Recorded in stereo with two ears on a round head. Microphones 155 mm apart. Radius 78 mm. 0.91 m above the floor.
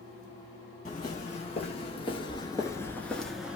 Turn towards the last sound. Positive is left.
turn(degrees=-5)  # may be behind; listen again after turning